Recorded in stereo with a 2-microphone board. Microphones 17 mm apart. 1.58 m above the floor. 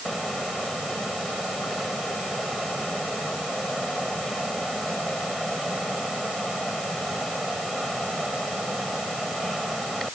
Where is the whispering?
I don't hear whispering.